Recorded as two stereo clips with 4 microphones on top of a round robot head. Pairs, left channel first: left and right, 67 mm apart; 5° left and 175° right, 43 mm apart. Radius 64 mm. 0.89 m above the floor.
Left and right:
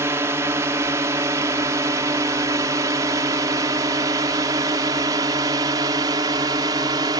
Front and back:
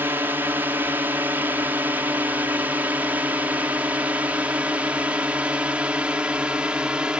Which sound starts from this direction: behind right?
A drone, at 0.0 s.